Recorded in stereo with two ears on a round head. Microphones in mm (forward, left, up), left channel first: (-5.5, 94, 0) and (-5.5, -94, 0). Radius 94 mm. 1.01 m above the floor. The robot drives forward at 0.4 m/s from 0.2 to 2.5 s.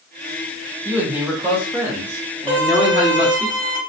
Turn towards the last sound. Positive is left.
turn(degrees=5)  # may be behind; listen again after turning